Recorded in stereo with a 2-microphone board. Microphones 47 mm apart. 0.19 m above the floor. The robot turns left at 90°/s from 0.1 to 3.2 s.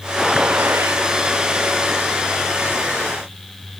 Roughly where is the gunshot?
Ahead.